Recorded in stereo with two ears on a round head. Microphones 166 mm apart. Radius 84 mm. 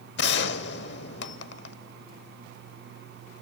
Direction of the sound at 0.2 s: 65° left (ahead or behind).